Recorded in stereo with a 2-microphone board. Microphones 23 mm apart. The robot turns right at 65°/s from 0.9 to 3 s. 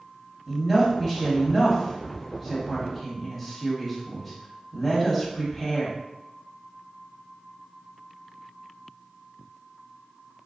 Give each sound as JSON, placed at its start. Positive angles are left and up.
{"t": 0.5, "sound": "a woman speaking", "side_deg": -10, "distance_m": 1.2}